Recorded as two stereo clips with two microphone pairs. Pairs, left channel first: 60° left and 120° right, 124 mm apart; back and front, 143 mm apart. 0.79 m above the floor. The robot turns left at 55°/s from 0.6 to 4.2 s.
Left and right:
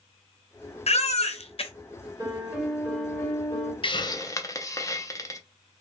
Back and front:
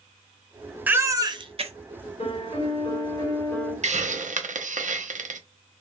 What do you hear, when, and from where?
0.9 s a baby crying: 75° left, 0.5 m; by 1.7 s 30° left, 0.5 m
2.2 s a piano: 175° left, 1.3 m; by 3.7 s 90° left, 1.3 m
3.8 s a hiss: 25° left, 0.5 m; by 5.4 s 5° left, 0.5 m